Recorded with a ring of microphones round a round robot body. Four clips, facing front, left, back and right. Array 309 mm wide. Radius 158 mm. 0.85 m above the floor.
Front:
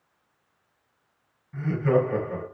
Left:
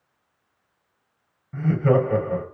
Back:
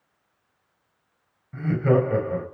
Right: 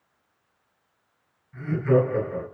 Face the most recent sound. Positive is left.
turn(degrees=115)